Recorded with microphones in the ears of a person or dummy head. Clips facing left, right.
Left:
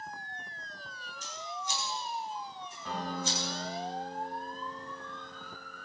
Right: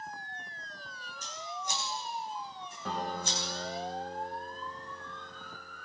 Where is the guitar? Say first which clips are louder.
Even; 60° right (ahead or behind), 3.5 m.